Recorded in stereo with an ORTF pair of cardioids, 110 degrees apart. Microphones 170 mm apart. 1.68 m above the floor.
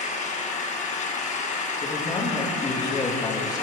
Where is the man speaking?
25° left, 2.5 m.